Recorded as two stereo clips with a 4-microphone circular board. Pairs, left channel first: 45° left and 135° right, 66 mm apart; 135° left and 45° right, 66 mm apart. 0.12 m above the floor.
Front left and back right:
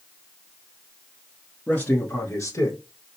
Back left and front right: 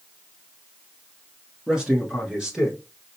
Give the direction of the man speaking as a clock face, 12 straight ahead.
11 o'clock.